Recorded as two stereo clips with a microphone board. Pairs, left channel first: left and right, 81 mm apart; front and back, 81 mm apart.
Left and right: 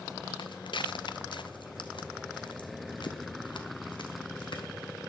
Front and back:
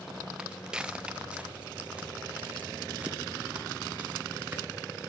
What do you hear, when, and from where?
0.4 s footsteps: 95° left, 0.6 m; by 5.0 s 105° left, 3.5 m